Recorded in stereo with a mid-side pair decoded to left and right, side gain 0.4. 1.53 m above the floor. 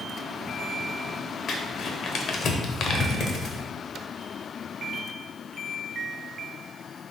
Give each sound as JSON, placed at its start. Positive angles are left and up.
{"t": 1.5, "sound": "crumpling", "azimuth_deg": 65, "distance_m": 0.8}